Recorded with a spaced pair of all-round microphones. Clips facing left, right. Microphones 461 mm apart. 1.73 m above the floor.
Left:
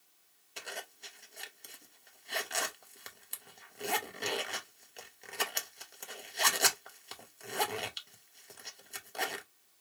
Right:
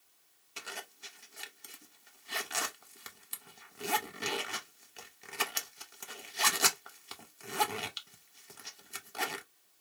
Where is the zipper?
25° right (ahead or behind), 0.6 m.